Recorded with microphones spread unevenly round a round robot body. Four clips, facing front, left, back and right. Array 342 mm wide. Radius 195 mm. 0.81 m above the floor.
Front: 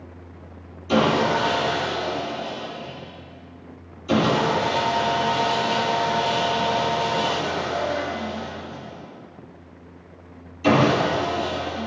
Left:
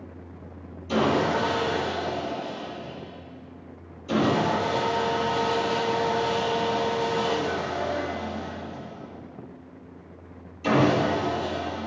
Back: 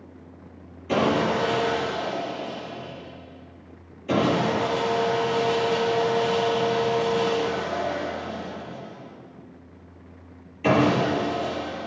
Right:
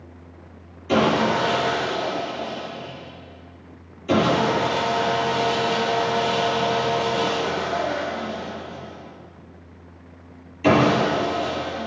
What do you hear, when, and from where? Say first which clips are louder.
0.9 s sawing: right 4 dB, front 3 dB; 110° right, 5.5 m